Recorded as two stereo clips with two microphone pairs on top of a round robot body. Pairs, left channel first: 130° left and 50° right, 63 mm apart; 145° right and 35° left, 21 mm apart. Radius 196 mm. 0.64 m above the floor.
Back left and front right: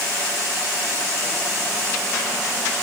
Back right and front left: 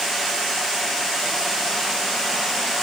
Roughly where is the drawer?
I don't hear a drawer.